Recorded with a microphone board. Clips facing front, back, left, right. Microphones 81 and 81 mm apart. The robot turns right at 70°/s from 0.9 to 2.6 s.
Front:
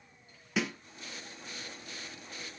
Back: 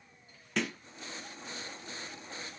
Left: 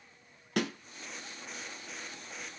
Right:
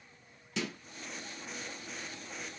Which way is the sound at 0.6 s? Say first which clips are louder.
Front 1 dB, left 5 dB; 85° left.